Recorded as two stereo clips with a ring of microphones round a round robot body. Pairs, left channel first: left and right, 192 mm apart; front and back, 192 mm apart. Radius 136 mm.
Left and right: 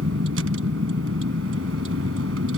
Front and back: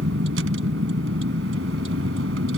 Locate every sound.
0.0 s a vehicle: 135° right